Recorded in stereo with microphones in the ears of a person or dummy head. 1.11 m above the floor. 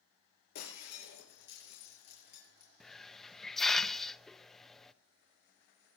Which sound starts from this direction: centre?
A hiss, at 2.8 s.